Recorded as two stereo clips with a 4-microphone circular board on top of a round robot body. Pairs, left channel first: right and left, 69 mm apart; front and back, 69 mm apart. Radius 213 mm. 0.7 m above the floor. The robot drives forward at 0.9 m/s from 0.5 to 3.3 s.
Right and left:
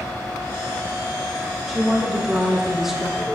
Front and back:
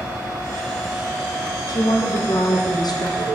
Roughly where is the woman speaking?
Ahead.